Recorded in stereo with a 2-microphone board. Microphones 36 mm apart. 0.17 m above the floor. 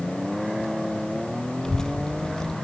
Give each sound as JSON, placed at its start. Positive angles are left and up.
{"t": 1.6, "sound": "a child speaking", "side_deg": 20, "distance_m": 0.7}